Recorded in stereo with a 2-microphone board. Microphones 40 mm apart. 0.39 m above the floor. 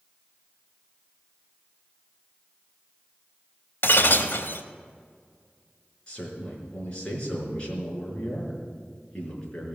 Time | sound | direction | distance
3.8 | breaking glass | 65° left (ahead or behind) | 1.0 m
6.1 | a man speaking | 25° left (ahead or behind) | 5 m